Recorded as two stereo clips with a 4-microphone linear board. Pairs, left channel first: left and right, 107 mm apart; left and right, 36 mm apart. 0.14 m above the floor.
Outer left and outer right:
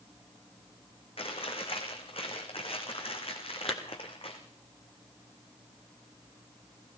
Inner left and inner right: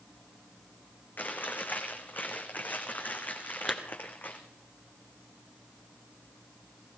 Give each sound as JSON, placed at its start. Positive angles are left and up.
{"t": 1.2, "sound": "chewing", "side_deg": 60, "distance_m": 3.5}
{"t": 3.7, "sound": "a clap", "side_deg": 0, "distance_m": 1.9}